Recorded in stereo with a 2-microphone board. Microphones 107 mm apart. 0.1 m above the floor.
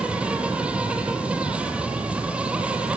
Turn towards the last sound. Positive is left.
turn(degrees=-10)  # may be behind; listen again after turning